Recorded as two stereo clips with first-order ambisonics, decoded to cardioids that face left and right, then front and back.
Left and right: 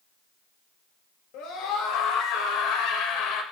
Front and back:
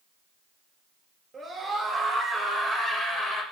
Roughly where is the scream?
Left.